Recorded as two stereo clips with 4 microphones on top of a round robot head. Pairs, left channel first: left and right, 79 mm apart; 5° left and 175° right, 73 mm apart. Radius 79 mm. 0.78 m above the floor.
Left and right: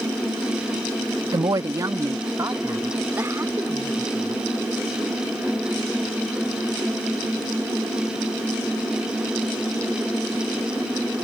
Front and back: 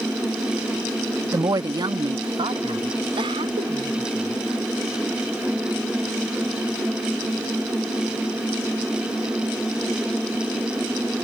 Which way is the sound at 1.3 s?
130° right.